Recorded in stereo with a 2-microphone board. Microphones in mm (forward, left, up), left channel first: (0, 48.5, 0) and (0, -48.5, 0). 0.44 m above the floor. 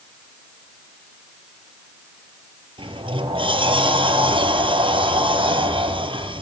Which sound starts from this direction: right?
A sliding door, at 2.8 s.